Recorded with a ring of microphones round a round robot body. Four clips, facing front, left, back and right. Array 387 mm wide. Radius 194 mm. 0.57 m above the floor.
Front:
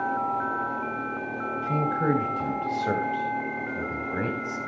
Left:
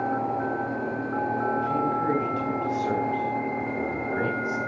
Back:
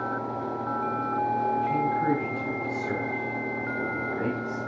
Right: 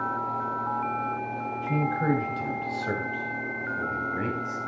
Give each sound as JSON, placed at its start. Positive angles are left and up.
{"t": 1.6, "sound": "a man speaking", "azimuth_deg": -25, "distance_m": 3.0}